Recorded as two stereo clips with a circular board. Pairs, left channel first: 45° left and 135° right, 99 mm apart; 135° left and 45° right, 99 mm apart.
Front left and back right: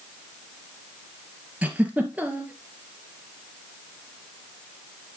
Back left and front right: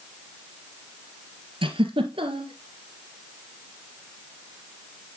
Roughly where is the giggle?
Ahead right.